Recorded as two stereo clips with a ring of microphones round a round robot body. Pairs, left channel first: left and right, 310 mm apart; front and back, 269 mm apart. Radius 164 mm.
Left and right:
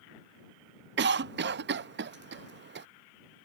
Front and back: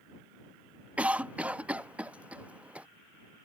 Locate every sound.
1.0 s a cough: 100° right